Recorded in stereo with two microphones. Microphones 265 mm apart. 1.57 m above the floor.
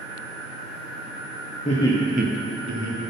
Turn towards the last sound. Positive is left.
turn(degrees=-80)